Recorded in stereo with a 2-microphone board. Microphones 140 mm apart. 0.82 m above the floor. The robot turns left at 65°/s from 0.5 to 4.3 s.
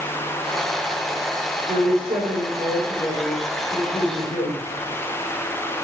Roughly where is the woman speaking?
Right.